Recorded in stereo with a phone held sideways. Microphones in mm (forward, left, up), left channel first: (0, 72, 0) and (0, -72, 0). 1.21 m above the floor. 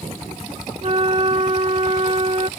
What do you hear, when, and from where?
0.8 s a flute: 45° right (ahead or behind)